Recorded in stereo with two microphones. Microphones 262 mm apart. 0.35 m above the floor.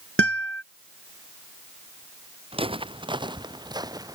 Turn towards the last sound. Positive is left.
turn(degrees=-15)  # may be behind; listen again after turning